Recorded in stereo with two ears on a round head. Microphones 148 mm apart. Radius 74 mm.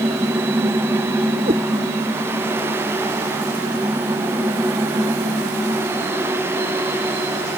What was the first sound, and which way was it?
A cat meowing, 35° right (ahead or behind).